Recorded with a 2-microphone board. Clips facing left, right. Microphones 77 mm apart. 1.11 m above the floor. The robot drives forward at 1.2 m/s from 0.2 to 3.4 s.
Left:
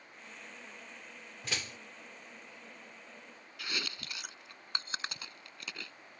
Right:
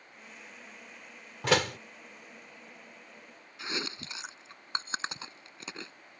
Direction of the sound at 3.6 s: 25° right (ahead or behind).